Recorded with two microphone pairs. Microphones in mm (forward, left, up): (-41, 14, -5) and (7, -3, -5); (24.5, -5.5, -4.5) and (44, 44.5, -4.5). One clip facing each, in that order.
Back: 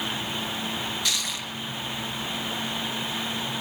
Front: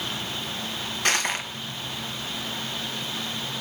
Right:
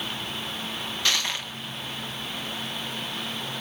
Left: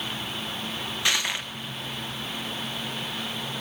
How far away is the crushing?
About 2 m.